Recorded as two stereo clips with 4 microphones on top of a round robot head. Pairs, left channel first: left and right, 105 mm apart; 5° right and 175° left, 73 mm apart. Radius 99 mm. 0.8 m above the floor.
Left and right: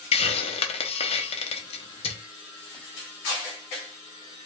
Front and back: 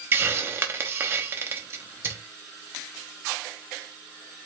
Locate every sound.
0.1 s a hiss: 120° left, 0.8 m